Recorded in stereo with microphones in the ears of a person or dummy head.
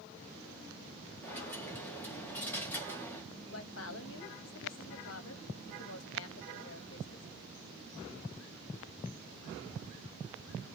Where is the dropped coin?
5° left (ahead or behind), 1.0 m.